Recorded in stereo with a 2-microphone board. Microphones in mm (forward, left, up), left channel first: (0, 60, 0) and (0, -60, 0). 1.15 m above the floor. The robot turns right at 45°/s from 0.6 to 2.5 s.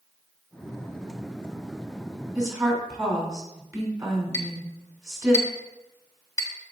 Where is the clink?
30° left (ahead or behind), 1.3 m.